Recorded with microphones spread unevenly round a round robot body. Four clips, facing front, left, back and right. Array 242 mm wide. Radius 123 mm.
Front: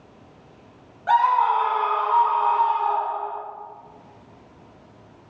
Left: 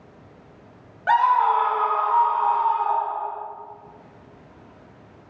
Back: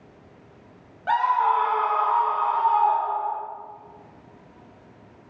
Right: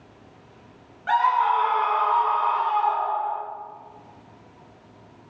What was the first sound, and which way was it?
A scream, 110° left.